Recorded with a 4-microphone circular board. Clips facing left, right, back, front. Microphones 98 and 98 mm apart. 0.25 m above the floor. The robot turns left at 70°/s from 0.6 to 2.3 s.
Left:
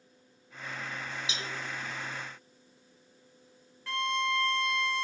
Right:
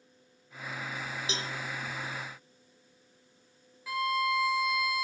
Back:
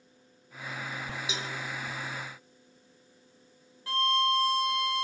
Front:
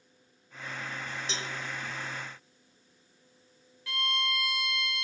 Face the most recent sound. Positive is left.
turn(degrees=-170)